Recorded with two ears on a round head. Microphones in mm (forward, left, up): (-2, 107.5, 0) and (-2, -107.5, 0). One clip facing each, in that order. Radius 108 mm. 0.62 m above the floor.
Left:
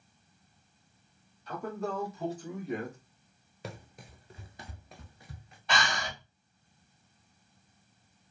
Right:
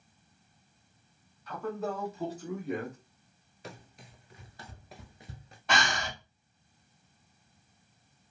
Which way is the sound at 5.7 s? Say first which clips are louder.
Right 1 dB; 40° right (ahead or behind).